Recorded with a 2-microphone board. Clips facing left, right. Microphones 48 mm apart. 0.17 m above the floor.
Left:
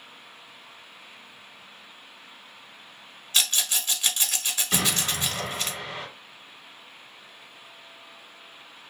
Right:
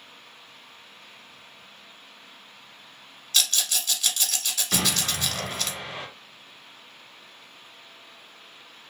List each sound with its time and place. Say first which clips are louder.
3.3 s a rattle: even; 20° left (ahead or behind), 0.7 m
4.7 s an explosion: even; 10° right (ahead or behind), 1.4 m